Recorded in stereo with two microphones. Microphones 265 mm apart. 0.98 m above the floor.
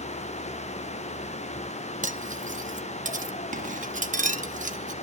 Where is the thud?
I don't hear a thud.